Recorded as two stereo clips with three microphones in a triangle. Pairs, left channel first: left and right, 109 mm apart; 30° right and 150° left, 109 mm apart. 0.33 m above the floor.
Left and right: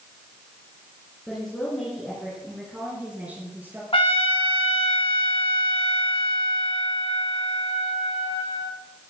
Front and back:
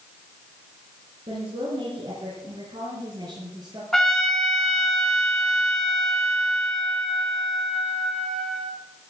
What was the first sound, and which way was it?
A woman speaking, 175° left.